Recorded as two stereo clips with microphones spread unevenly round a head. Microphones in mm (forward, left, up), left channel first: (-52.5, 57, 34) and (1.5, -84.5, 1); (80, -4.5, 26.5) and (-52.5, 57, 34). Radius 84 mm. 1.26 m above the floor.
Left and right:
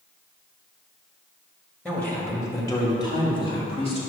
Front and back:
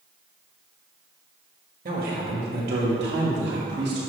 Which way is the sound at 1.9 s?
165° right.